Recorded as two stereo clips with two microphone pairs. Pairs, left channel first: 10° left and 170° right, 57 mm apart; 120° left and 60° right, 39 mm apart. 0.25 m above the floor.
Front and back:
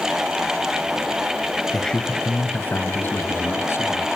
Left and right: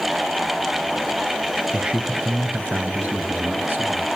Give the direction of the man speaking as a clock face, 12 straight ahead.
2 o'clock.